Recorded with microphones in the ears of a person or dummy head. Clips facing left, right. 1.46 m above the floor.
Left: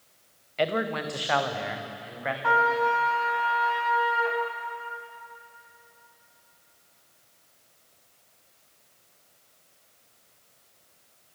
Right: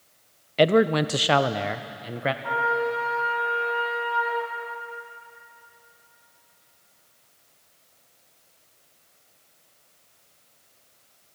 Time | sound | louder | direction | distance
0.6 | a man speaking | right 9 dB | 50° right (ahead or behind) | 0.7 m
2.4 | a trumpet | left 5 dB | 60° left (ahead or behind) | 3.5 m